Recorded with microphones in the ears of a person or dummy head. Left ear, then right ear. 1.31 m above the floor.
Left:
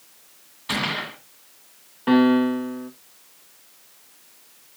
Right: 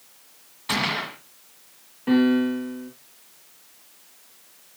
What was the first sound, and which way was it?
A gunshot, 10° right (ahead or behind).